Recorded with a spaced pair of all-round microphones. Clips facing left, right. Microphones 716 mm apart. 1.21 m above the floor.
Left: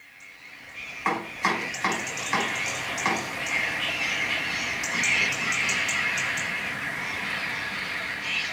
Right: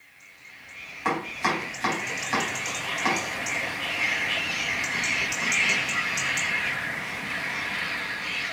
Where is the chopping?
65° right (ahead or behind), 3.5 m.